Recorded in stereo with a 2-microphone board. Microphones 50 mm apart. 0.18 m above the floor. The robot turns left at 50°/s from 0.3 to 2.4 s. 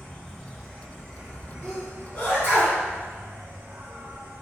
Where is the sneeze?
15° left (ahead or behind), 1.7 m; by 2.8 s 40° left (ahead or behind), 1.7 m.